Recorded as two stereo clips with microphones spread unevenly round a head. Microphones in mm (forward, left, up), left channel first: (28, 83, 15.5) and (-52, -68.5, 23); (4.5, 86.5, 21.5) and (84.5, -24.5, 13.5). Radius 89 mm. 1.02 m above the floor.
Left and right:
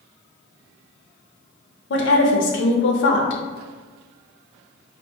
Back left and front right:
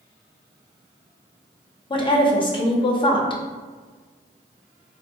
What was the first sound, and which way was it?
A woman speaking, 70° left.